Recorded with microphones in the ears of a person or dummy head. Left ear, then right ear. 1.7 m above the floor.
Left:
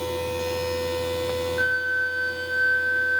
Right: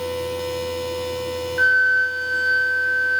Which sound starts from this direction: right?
A flute, at 1.6 s.